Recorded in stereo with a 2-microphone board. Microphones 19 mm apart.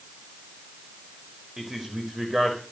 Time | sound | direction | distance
1.6 | a man speaking | 25° right (ahead or behind) | 6.5 m